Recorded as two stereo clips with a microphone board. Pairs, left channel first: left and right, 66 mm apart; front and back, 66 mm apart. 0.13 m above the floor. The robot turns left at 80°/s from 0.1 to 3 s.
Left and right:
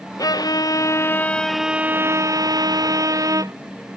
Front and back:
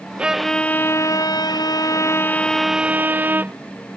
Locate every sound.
0.2 s a violin: 110° left; by 3.5 s 115° right